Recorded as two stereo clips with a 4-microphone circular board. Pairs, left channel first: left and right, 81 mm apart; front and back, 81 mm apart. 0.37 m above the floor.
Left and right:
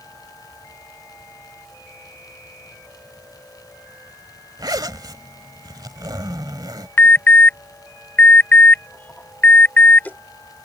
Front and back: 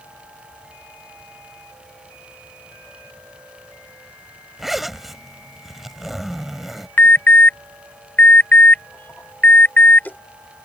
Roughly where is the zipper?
Right.